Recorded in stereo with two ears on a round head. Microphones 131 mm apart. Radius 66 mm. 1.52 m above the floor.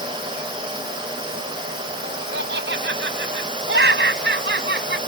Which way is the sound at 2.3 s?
80° right.